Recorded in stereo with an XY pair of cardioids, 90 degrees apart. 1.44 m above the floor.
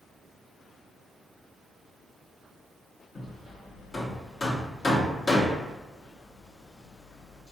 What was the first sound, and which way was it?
Hammering, 40° left.